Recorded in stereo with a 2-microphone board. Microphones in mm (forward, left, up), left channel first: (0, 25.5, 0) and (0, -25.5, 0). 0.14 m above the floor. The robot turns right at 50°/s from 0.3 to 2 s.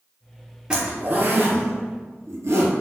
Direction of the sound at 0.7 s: 20° right (ahead or behind).